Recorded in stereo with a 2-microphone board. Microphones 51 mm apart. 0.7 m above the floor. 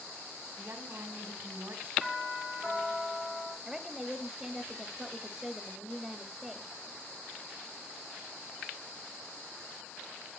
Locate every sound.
0.6 s a woman speaking: 45° right (ahead or behind), 4.5 m
2.0 s a doorbell: 5° right (ahead or behind), 5 m
3.6 s a woman speaking: 5° right (ahead or behind), 1.3 m